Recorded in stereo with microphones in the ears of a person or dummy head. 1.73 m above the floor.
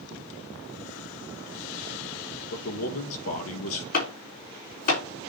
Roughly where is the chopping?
Left.